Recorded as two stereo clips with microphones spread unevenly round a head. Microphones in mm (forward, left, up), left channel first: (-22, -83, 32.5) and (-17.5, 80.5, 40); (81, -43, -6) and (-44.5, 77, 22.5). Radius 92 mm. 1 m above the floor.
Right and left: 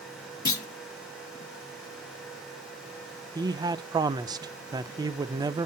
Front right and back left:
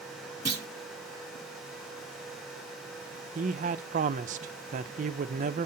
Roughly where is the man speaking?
Behind left.